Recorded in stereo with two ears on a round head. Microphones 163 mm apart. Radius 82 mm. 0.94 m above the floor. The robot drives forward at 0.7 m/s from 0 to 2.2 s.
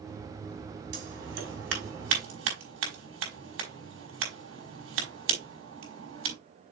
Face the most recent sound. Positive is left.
turn(degrees=-85)